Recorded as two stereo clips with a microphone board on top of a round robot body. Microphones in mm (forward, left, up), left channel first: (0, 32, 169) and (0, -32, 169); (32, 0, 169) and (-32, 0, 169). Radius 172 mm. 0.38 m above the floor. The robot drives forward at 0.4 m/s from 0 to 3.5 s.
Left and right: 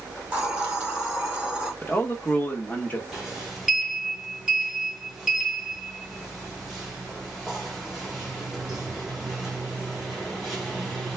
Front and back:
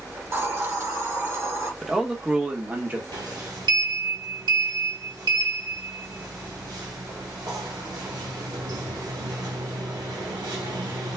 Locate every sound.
0.2 s a hiss: 150° right, 1.8 m; by 1.7 s 160° right, 2 m
1.8 s a man speaking: 95° left, 1.1 m; by 3.0 s 135° left, 1.3 m
3.1 s a sliding door: 170° right, 1.0 m